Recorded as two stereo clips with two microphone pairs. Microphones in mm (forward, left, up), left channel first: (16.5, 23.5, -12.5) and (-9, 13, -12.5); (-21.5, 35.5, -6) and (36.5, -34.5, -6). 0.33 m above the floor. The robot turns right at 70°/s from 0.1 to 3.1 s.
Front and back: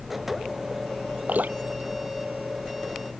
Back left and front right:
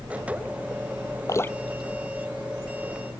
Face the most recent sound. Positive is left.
turn(degrees=-50)